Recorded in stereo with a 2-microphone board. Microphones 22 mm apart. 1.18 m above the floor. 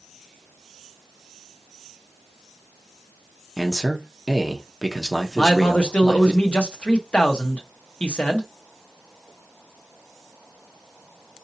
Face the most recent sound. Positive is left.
turn(degrees=55)  # may be behind; listen again after turning